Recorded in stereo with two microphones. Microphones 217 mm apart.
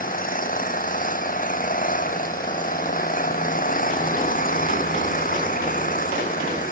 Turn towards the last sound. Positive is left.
turn(degrees=40)  # may be behind; listen again after turning